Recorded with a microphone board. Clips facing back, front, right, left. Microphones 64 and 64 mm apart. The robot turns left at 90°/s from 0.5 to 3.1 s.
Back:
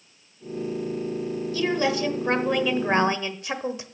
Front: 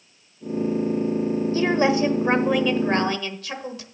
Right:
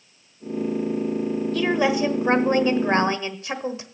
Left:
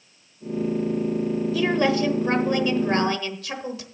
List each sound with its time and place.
1.5 s a woman speaking: 10° left, 1.1 m; by 3.9 s 130° right, 1.1 m